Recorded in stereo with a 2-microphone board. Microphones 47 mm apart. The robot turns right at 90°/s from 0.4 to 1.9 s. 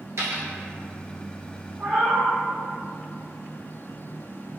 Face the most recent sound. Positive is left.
turn(degrees=-40)  # may be behind; listen again after turning